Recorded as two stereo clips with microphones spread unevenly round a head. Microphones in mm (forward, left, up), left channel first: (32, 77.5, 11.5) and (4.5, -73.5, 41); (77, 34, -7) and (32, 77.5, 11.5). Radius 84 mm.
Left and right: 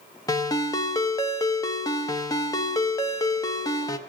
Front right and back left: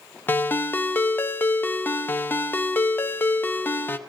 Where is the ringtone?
15° left, 0.5 m.